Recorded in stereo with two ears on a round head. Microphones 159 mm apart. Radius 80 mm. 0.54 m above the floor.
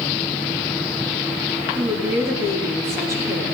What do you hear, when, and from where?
1.8 s a woman speaking: 15° right (ahead or behind), 5 m